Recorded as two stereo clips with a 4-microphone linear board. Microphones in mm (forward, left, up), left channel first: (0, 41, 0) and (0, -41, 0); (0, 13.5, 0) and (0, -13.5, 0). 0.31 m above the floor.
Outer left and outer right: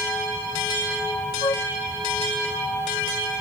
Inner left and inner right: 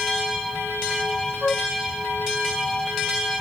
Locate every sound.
1.4 s a flute: 60° left (ahead or behind)